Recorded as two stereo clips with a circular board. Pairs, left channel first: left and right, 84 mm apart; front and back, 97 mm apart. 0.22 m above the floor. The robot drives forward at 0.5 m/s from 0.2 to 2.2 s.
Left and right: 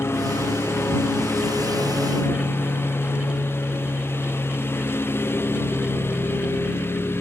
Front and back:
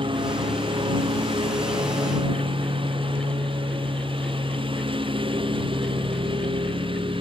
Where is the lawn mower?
150° left; by 7.2 s 155° left.